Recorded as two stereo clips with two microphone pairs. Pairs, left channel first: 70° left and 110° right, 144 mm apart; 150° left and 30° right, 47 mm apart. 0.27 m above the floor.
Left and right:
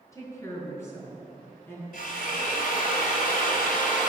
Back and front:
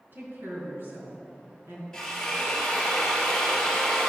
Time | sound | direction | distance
0.1 | a woman speaking | 5° left | 3.5 m
1.9 | a drill | 70° left | 3 m